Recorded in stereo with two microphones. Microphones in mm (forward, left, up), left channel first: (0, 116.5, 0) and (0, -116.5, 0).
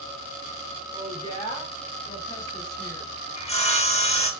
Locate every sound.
0.9 s a woman speaking: 25° left (ahead or behind), 1.3 m; by 3.1 s 55° left (ahead or behind), 2 m
3.4 s sawing: 25° left (ahead or behind), 0.7 m